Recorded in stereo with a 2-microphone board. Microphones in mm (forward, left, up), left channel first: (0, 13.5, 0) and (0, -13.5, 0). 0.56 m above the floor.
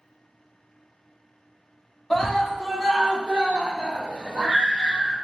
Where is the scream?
20° left (ahead or behind), 0.9 m; by 5.2 s 50° right (ahead or behind), 1.7 m.